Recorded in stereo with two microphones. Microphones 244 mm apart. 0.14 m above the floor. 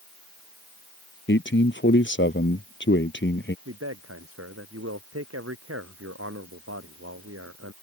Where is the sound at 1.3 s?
50° left (ahead or behind).